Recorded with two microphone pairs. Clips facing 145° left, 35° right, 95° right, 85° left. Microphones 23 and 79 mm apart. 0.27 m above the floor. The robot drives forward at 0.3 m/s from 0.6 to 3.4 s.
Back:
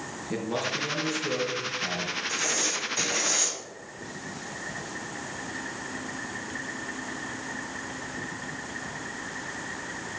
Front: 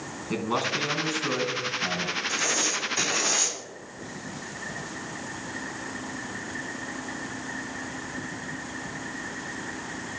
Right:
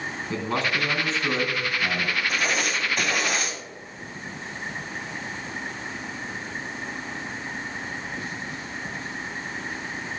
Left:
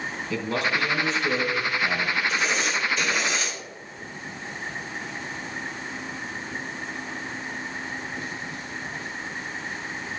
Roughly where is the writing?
Right.